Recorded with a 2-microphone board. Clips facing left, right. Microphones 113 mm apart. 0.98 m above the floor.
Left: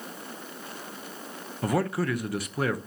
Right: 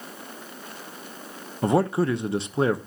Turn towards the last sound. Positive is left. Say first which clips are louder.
# right 5 dB
turn(degrees=-25)  # may be behind; listen again after turning